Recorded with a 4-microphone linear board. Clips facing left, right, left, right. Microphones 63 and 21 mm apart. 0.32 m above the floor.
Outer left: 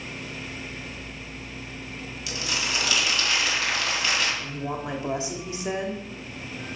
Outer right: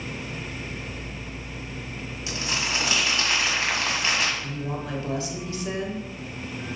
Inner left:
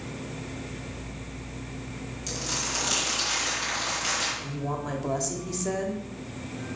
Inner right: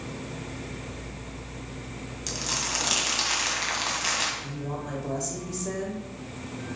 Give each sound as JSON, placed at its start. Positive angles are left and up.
{"t": 2.3, "sound": "crumpling", "side_deg": -30, "distance_m": 1.8}
{"t": 4.4, "sound": "a woman speaking", "side_deg": 20, "distance_m": 1.0}